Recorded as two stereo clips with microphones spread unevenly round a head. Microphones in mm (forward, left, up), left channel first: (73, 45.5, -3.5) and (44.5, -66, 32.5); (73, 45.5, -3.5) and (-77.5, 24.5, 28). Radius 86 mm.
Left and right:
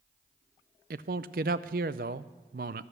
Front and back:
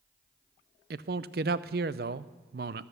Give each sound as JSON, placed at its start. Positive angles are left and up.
{"t": 0.9, "sound": "a man speaking", "azimuth_deg": -130, "distance_m": 0.5}